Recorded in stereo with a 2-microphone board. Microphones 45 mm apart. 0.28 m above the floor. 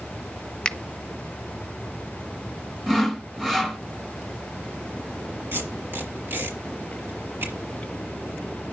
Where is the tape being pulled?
60° right (ahead or behind), 4.5 m.